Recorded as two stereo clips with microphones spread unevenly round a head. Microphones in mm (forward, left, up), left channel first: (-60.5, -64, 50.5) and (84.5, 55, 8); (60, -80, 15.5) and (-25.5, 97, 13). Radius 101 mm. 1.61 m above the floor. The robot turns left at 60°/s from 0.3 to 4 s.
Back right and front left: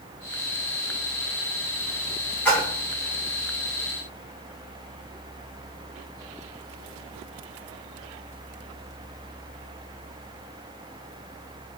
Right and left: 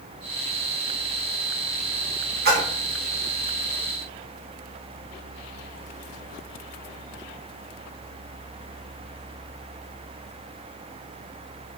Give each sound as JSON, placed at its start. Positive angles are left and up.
{"t": 2.5, "sound": "a splash", "azimuth_deg": 150, "distance_m": 1.6}